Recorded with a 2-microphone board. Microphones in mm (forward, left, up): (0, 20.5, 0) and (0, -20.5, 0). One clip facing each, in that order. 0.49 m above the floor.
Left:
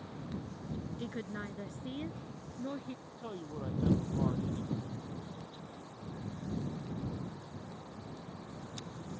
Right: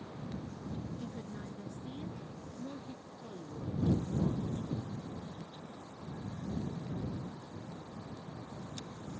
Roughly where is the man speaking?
Left.